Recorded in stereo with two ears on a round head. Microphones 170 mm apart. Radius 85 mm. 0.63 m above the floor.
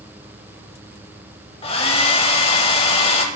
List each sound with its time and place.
1.6 s a hair dryer: 30° left (ahead or behind), 0.8 m